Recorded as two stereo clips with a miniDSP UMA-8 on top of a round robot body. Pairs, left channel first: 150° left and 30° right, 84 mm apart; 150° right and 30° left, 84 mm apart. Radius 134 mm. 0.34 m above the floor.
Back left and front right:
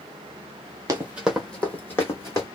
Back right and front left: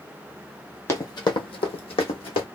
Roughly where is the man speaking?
No man speaking in this recording.